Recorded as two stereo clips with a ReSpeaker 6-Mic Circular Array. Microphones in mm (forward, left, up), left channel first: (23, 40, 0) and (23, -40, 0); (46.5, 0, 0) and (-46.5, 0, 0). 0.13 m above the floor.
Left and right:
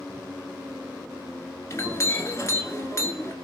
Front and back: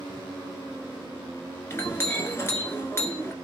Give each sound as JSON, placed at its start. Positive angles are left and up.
{"t": 1.7, "sound": "a clink", "azimuth_deg": 50, "distance_m": 1.2}